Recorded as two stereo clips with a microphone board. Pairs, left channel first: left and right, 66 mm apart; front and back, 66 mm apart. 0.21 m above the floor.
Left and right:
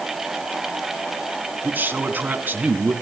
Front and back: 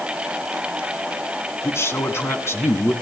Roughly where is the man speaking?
Ahead right.